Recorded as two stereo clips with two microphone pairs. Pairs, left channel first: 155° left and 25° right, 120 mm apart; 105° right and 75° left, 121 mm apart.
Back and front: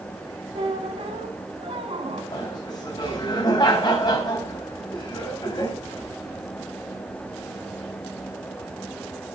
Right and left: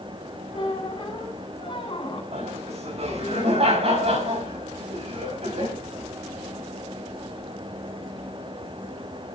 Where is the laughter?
105° left, 5 m.